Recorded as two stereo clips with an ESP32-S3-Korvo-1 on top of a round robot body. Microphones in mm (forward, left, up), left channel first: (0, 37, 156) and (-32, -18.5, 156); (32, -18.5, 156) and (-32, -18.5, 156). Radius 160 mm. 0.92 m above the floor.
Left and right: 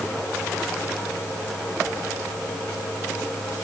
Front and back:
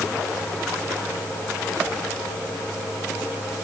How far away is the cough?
No cough in this recording.